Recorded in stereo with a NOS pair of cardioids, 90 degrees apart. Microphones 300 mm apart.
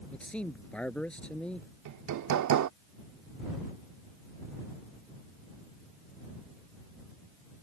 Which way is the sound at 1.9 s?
65° right.